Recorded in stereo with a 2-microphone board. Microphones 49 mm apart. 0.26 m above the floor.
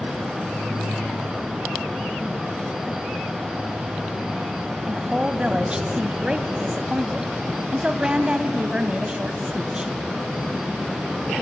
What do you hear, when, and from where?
4.9 s a woman speaking: 20° right (ahead or behind), 1.5 m